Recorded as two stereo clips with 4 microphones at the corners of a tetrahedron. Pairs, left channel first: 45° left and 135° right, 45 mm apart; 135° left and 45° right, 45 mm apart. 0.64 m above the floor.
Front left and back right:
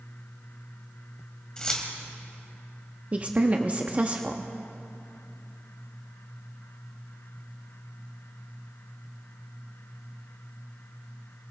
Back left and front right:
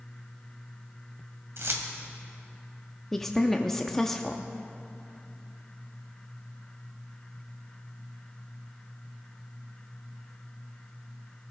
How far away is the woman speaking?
About 0.7 m.